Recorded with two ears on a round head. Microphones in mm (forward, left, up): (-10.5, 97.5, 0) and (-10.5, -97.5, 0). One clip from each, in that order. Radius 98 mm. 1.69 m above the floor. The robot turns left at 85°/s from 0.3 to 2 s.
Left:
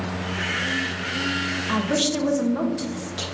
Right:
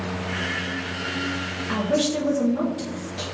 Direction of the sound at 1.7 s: 20° left (ahead or behind).